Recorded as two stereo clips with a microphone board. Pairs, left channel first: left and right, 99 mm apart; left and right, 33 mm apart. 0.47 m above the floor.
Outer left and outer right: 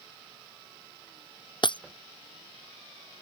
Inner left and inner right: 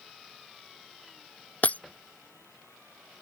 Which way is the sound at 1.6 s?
50° left (ahead or behind).